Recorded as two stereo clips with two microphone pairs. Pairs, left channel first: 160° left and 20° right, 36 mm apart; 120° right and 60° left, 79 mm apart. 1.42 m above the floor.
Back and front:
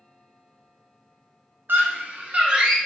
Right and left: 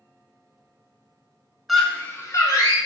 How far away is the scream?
About 0.7 m.